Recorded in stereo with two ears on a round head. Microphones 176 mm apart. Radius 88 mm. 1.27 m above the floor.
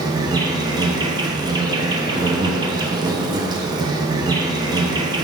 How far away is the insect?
About 0.9 m.